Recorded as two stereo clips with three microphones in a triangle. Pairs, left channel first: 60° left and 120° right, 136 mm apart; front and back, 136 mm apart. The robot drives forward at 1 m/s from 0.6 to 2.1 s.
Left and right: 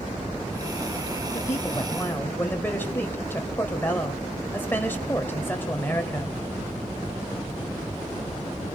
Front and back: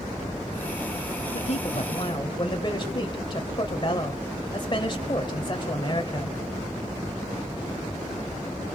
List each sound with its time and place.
1.3 s a woman speaking: straight ahead, 2 m